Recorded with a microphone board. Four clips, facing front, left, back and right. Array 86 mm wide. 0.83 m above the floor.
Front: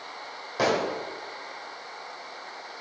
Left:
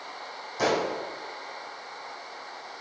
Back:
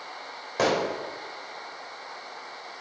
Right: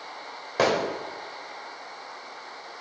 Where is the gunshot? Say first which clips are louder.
Right 2 dB, even; 105° right, 2.5 m.